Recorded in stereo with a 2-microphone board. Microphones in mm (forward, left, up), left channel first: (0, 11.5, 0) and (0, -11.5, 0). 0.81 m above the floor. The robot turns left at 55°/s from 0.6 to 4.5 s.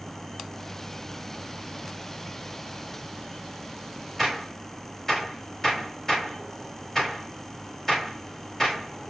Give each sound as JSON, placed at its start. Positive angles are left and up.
{"t": 4.2, "sound": "a gunshot", "side_deg": 0, "distance_m": 5.0}